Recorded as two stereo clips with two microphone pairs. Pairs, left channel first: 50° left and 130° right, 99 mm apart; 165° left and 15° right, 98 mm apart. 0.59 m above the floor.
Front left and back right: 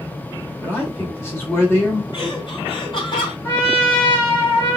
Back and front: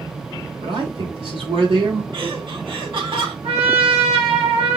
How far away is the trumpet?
About 3 m.